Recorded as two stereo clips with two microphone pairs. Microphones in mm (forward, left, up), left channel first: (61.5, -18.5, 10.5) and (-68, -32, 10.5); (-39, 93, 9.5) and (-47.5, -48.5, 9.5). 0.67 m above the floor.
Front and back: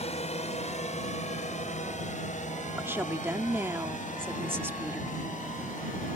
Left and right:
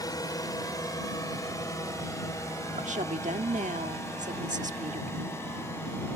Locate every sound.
0.0 s a drone: 25° left; by 6.2 s 15° left
2.8 s a woman speaking: 105° right